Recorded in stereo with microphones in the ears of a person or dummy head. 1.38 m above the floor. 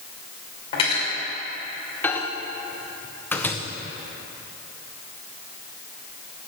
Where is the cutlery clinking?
30° left (ahead or behind), 2.5 m.